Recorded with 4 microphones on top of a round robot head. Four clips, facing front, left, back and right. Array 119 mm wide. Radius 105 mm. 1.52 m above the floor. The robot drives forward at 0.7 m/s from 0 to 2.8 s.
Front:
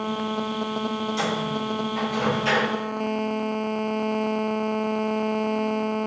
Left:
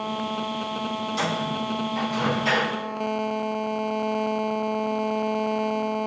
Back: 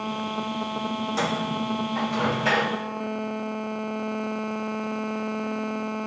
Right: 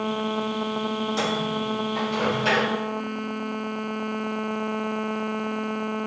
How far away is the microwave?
About 2 m.